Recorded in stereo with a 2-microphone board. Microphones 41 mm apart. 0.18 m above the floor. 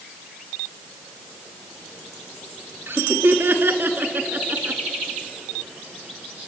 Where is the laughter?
65° right (ahead or behind), 3 m; by 4.8 s 45° right (ahead or behind), 1.8 m.